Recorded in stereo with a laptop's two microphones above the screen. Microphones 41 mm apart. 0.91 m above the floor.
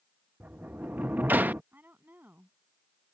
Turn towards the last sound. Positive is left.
turn(degrees=-50)  # may be behind; listen again after turning